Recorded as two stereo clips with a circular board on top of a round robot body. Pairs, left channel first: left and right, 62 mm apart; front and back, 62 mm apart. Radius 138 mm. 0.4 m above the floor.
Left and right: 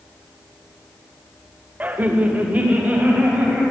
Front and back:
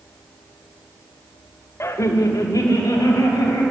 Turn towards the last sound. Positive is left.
turn(degrees=-20)